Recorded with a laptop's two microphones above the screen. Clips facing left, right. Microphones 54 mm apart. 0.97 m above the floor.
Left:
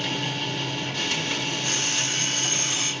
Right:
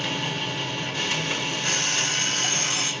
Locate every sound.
0.0 s a machine running: 15° right (ahead or behind), 1.6 m
1.6 s an alarm clock: 55° right (ahead or behind), 1.0 m